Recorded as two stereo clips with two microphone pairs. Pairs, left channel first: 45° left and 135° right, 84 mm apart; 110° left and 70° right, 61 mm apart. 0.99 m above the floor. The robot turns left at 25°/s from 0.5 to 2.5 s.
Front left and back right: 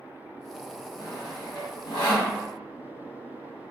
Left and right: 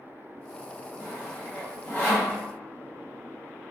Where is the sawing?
75° left, 1.4 m; by 2.4 s 40° left, 1.4 m.